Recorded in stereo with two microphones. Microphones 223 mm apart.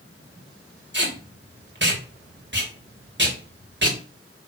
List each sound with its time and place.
0.9 s tape being pulled: 50° right (ahead or behind), 3 m